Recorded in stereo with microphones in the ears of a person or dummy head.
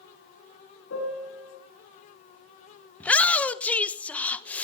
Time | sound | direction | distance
0.9 | a piano | 80° left | 7 m
3.0 | a shout | 5° left (ahead or behind) | 1.1 m